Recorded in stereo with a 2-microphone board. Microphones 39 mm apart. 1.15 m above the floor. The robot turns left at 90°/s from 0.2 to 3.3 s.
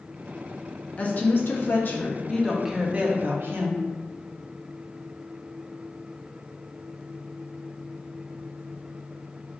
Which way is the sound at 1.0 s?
140° left.